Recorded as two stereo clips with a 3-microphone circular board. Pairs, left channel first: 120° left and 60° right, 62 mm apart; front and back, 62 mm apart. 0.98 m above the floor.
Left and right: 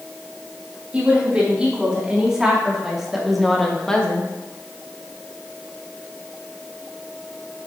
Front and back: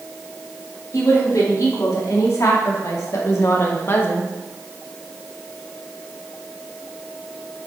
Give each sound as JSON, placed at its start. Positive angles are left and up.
{"t": 0.9, "sound": "a woman speaking", "azimuth_deg": 10, "distance_m": 3.0}